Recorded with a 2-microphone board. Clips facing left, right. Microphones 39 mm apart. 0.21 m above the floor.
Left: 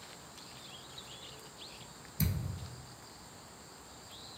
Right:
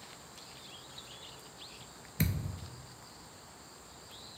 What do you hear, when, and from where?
2.2 s a thud: 60° right (ahead or behind), 0.5 m